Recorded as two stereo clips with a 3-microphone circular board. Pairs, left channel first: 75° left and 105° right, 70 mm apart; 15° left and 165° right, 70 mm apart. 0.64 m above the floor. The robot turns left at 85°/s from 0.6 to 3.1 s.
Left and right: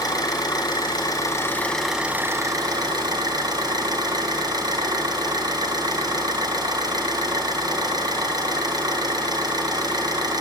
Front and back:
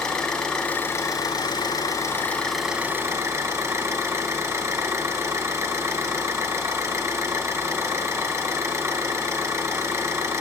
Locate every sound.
0.0 s an engine running: 95° left, 2 m; by 10.4 s 120° right, 2 m